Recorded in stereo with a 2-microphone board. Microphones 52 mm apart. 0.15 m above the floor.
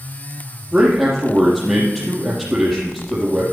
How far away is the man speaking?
About 3.5 m.